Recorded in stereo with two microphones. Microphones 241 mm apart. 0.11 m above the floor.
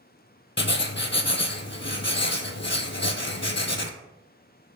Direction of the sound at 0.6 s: 50° left (ahead or behind).